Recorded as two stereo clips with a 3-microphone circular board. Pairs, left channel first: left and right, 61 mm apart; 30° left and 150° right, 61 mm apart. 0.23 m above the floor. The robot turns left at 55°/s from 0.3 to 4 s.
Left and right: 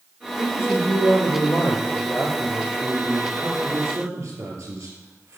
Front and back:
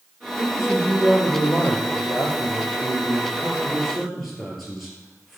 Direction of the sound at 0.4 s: 140° left.